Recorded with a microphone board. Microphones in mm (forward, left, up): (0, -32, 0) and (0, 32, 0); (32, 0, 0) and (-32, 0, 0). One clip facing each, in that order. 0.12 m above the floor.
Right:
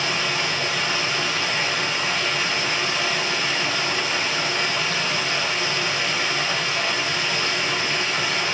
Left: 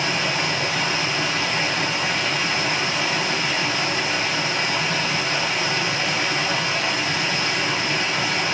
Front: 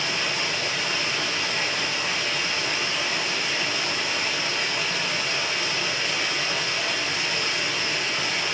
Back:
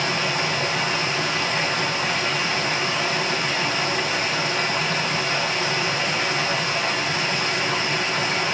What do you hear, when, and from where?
0.0 s running water: 150° left, 2 m